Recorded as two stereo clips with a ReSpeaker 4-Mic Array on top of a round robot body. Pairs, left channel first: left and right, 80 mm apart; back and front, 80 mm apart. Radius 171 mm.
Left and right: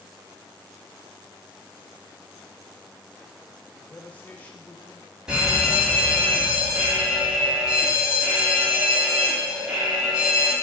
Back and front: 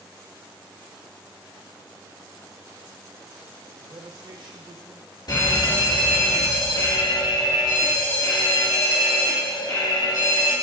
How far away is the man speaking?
About 1.4 m.